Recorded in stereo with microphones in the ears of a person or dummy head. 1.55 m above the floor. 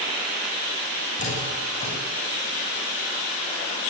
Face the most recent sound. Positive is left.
turn(degrees=40)  # may be behind; listen again after turning